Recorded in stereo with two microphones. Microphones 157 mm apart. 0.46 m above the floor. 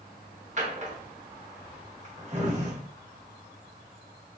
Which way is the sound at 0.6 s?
45° right (ahead or behind).